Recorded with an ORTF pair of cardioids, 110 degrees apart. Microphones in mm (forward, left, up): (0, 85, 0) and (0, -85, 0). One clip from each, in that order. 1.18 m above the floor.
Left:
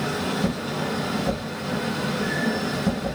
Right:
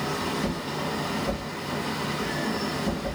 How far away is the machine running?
About 4 m.